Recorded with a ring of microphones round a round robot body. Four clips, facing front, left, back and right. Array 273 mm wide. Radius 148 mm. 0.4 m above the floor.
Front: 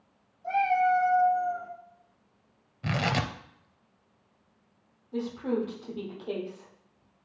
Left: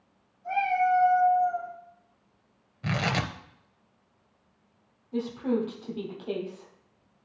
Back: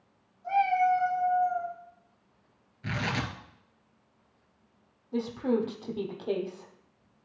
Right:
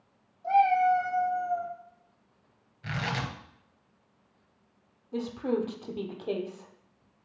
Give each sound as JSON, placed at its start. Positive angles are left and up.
{"t": 0.4, "sound": "a cat meowing", "azimuth_deg": -65, "distance_m": 4.0}
{"t": 2.8, "sound": "tearing paper", "azimuth_deg": 40, "distance_m": 0.8}
{"t": 5.1, "sound": "a woman speaking", "azimuth_deg": -140, "distance_m": 1.4}